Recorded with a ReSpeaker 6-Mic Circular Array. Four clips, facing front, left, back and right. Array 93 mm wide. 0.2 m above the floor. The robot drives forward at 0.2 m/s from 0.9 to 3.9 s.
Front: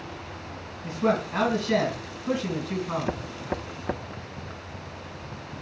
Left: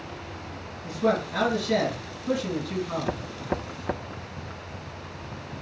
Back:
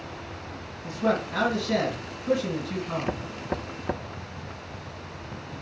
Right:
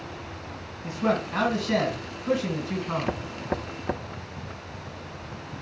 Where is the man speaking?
40° right, 2.0 m; by 3.1 s 60° right, 1.8 m.